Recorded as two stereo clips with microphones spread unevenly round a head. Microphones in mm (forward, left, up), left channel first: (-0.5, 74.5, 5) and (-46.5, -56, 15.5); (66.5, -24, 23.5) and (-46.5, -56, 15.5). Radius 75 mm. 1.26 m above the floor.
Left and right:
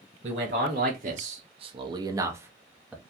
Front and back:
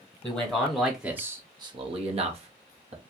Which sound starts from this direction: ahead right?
A man speaking, at 0.2 s.